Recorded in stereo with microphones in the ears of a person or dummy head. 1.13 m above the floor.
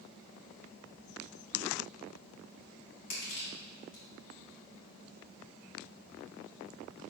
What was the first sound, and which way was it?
Crushing, 55° left (ahead or behind).